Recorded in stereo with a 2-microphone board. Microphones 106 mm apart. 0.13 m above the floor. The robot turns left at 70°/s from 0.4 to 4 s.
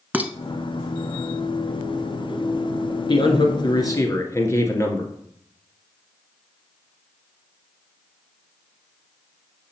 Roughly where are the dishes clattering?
Centre.